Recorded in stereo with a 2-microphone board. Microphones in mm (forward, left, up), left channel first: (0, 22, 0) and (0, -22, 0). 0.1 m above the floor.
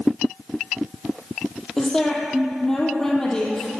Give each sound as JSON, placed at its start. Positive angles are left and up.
{"t": 1.8, "sound": "a woman speaking", "side_deg": 15, "distance_m": 3.5}